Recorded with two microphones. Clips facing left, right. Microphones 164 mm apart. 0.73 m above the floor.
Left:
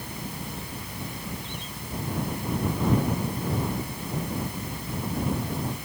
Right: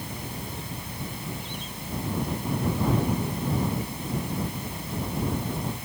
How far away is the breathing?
I don't hear breathing.